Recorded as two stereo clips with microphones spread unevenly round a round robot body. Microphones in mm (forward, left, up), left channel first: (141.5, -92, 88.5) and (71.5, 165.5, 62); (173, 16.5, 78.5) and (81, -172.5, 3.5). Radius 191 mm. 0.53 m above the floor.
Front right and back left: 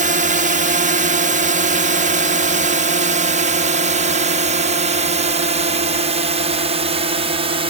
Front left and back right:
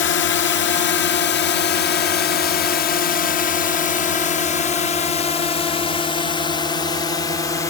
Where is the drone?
85° left; by 7.7 s 160° left.